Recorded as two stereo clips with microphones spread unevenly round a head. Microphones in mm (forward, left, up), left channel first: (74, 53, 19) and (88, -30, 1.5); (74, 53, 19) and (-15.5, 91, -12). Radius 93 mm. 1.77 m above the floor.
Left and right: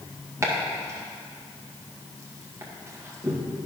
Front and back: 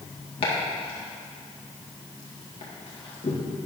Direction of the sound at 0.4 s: 20° right.